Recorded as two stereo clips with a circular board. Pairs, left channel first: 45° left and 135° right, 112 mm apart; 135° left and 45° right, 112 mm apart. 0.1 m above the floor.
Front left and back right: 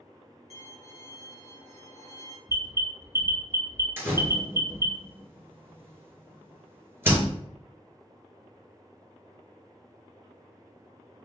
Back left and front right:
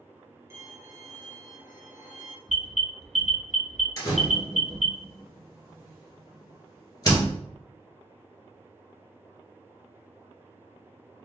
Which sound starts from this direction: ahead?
A violin, at 0.5 s.